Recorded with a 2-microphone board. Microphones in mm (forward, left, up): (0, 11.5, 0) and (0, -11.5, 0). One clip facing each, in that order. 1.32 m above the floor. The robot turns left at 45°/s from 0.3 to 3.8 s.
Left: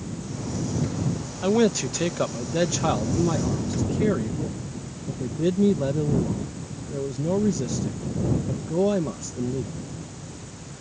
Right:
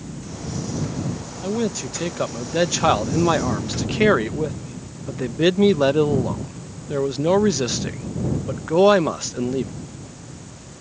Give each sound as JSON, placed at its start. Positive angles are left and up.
{"t": 1.4, "sound": "a man speaking", "azimuth_deg": 30}